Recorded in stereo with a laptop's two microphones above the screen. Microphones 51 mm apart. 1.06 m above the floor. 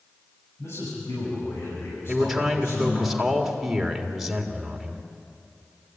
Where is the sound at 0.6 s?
70° left (ahead or behind), 9 m.